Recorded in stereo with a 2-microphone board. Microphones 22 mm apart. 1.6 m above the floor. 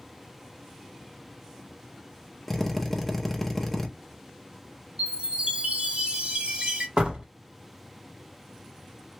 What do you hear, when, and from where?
2.5 s a drill: 5° left (ahead or behind), 0.6 m
5.0 s a chime: 50° right (ahead or behind), 2.5 m
7.0 s a door slam: 50° right (ahead or behind), 1.1 m